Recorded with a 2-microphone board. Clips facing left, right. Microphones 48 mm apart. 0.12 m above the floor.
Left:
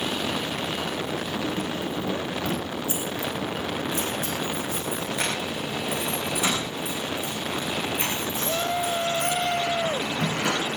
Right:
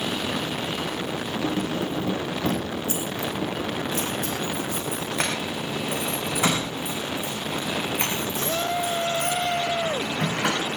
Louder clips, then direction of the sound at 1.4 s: Right 2 dB; 65° right (ahead or behind).